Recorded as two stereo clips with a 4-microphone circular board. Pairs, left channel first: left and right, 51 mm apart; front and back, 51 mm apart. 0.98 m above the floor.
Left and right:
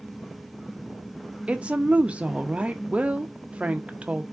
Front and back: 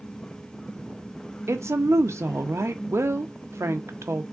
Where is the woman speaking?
155° right, 0.7 m.